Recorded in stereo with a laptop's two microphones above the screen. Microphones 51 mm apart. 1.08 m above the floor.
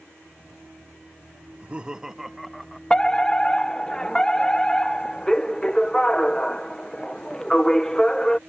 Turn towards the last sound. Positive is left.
turn(degrees=15)  # may be behind; listen again after turning